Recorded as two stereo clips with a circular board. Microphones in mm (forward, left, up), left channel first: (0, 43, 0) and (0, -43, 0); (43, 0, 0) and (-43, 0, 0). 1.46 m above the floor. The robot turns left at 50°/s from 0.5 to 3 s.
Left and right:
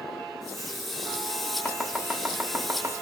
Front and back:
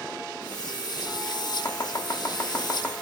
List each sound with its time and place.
1.6 s chopping: 10° left, 1.2 m; by 2.9 s 50° right, 1.2 m